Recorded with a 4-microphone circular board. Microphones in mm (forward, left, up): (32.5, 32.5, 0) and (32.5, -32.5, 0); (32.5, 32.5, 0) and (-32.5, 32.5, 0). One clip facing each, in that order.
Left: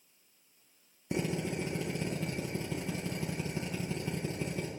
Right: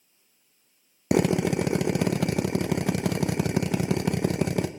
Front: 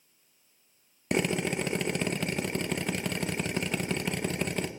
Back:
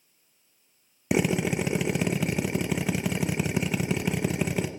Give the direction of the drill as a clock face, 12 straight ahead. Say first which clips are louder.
Right 11 dB, back 3 dB; 3 o'clock.